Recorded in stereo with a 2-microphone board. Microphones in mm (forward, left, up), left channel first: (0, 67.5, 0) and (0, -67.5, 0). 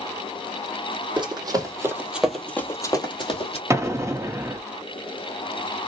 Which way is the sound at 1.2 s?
35° right (ahead or behind).